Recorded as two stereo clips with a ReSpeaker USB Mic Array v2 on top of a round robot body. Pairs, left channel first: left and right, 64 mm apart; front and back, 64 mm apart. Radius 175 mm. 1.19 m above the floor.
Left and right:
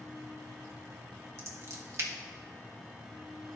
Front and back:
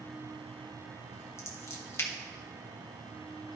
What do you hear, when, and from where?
1.4 s scissors: 45° right, 1.3 m